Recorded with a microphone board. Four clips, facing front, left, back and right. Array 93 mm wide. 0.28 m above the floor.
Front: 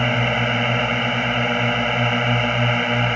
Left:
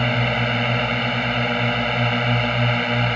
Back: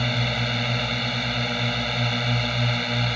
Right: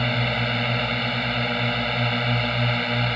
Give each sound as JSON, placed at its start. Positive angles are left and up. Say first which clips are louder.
{"t": 0.0, "sound": "a drone", "louder": "left 3 dB, front 6 dB", "azimuth_deg": 25}